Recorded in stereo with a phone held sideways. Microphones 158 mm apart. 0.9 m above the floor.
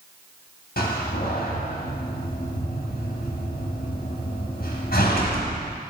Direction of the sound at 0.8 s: 75° left (ahead or behind).